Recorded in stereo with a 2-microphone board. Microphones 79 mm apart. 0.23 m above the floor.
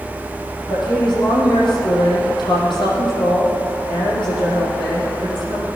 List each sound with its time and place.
0.7 s a woman speaking: 75° left (ahead or behind), 7 m